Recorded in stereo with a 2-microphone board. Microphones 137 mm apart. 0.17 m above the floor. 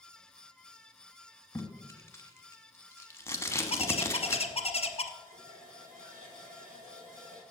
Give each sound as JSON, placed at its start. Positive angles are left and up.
{"t": 1.6, "sound": "tape being pulled", "side_deg": 20, "distance_m": 1.1}
{"t": 3.7, "sound": "a bird", "side_deg": 50, "distance_m": 0.8}
{"t": 5.2, "sound": "a running tap", "side_deg": -75, "distance_m": 4.5}